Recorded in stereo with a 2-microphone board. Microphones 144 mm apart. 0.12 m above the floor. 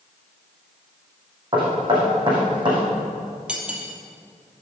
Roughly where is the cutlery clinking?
Centre.